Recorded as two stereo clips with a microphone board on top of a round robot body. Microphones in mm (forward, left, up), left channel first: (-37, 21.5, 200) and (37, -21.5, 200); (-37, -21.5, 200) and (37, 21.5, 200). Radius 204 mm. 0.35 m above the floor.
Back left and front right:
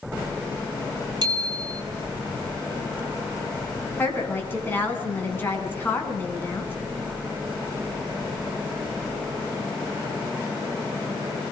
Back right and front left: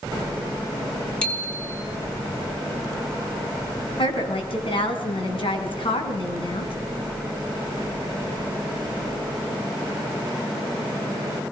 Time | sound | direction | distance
1.2 | a bicycle bell | 70° right | 3.5 m
4.0 | a woman speaking | 145° right | 6.5 m